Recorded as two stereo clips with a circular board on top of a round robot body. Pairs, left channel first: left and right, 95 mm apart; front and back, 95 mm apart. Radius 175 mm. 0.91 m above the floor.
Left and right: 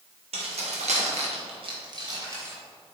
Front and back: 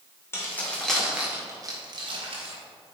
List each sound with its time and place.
0.3 s keys jangling: 65° right, 2 m; by 2.5 s 155° right, 2.5 m